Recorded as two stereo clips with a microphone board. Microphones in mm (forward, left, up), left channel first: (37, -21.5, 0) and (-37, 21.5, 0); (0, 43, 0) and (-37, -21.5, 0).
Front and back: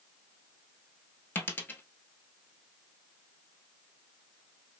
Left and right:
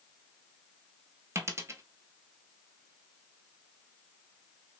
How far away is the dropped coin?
About 0.5 m.